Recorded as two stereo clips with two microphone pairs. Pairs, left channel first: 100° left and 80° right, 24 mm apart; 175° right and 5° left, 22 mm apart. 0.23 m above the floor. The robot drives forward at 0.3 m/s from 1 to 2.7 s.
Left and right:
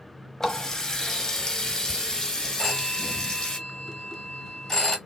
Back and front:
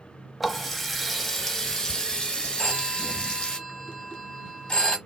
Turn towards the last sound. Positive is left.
turn(degrees=170)